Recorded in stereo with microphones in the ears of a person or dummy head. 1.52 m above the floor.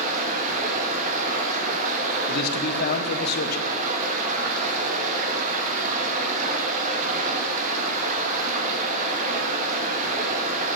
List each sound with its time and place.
0.0 s running water: 40° right (ahead or behind), 1.9 m
2.3 s a man speaking: 65° left (ahead or behind), 1.5 m